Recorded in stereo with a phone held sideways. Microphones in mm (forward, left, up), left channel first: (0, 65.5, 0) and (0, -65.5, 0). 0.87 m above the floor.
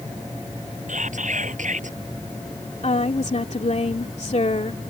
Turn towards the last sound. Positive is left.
turn(degrees=60)  # may be behind; listen again after turning